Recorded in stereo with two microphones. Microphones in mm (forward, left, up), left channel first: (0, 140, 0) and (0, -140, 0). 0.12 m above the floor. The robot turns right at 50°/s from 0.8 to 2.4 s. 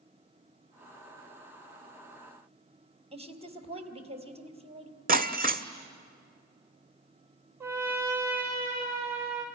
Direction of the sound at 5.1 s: 30° right (ahead or behind).